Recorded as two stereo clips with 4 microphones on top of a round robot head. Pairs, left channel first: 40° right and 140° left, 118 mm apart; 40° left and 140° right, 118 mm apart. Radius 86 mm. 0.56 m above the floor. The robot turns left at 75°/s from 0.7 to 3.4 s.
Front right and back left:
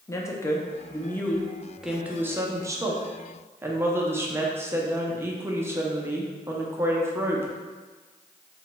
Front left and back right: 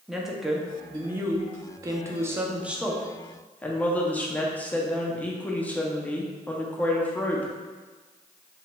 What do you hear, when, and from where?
0.1 s a woman speaking: 55° right, 0.6 m; by 7.5 s 100° left, 0.6 m